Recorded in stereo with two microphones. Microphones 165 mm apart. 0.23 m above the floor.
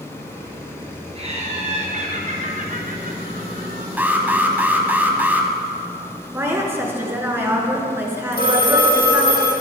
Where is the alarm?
10° right (ahead or behind), 1.5 m.